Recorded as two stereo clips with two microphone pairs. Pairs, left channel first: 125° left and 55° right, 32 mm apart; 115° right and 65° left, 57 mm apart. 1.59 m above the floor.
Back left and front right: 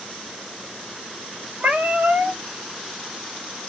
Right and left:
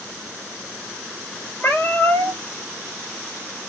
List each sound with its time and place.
1.6 s a cat meowing: 70° right, 2.0 m